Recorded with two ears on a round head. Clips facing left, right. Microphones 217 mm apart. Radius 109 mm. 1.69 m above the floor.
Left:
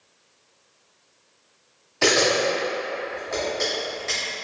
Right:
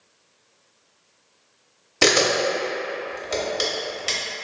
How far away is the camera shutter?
About 0.9 m.